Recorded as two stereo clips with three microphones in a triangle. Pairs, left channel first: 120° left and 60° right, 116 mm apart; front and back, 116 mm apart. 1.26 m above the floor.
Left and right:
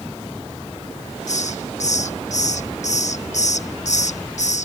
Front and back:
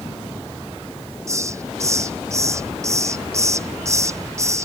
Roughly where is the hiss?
Behind left.